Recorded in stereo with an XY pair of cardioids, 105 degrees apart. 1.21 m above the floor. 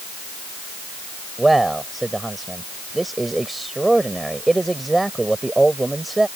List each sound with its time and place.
1.4 s a man speaking: 15° right